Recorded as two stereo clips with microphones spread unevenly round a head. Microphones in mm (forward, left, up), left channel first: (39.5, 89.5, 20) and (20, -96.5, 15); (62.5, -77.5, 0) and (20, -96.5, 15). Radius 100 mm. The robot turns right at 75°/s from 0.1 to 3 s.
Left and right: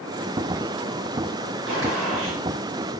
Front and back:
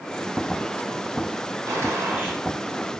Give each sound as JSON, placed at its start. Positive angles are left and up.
{"t": 1.7, "sound": "a gunshot", "azimuth_deg": -140, "distance_m": 2.0}